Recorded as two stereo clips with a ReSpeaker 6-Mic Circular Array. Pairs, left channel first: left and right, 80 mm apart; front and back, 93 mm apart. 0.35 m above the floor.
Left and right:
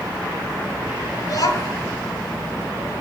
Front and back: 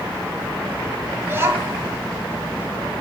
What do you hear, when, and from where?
1.2 s a child speaking: 120° left, 2 m